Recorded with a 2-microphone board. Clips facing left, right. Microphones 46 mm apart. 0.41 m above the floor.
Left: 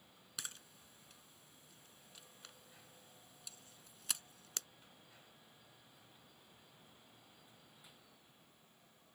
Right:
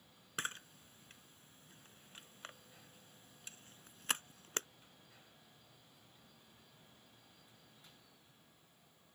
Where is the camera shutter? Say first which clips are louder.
Right 9 dB; 40° right (ahead or behind).